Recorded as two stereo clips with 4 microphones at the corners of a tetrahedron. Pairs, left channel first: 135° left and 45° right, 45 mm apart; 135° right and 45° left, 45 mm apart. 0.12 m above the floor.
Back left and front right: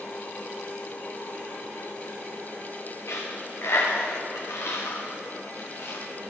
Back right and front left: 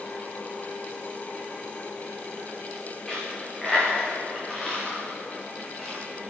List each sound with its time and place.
3.1 s a dropped coin: 140° left, 4 m